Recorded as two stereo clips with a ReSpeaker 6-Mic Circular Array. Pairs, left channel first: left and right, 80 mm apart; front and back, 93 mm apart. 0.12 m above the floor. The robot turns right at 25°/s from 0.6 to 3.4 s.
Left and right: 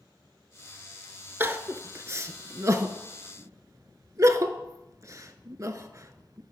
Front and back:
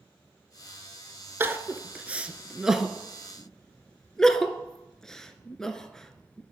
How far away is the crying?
About 0.5 m.